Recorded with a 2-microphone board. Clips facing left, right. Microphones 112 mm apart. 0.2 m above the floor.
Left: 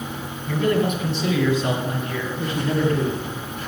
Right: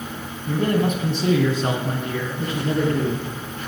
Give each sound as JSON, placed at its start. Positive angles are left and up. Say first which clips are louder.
{"t": 0.5, "sound": "a man speaking", "louder": "even", "side_deg": -30, "distance_m": 1.5}